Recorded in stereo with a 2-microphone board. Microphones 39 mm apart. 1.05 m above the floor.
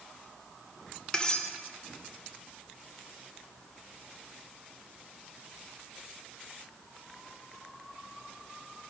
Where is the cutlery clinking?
20° left (ahead or behind), 0.6 m.